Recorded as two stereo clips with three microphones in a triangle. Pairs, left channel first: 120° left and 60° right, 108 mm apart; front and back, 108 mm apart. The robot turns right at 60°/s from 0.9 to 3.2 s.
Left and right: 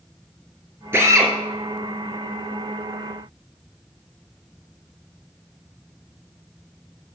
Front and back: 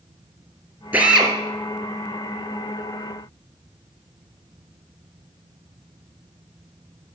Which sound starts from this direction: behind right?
A drill, at 0.9 s.